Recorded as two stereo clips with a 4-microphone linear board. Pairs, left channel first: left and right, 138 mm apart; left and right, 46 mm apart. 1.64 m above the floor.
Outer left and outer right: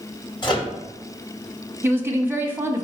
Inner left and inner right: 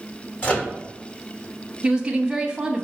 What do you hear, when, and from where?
0.4 s a microwave: 35° left (ahead or behind), 1.2 m
1.8 s a woman speaking: 15° right (ahead or behind), 0.7 m